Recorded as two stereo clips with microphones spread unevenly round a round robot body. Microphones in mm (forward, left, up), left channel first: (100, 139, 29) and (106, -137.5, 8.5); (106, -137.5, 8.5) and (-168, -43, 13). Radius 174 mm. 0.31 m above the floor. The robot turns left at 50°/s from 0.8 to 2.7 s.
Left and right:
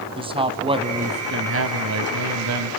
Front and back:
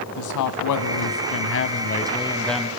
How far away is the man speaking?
About 1.9 m.